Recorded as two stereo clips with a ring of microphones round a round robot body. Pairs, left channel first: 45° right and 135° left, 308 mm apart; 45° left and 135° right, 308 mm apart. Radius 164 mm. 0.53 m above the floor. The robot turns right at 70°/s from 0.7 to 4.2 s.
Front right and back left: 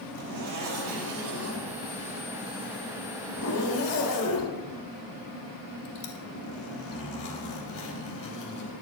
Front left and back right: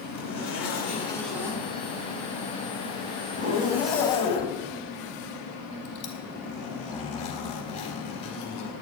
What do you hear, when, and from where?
0.1 s a zipper: 90° left, 3 m; by 8.7 s 25° right, 3 m